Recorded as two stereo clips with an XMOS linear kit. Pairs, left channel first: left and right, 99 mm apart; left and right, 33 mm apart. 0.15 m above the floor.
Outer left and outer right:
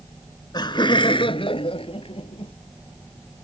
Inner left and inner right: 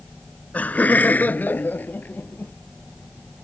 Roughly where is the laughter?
Left.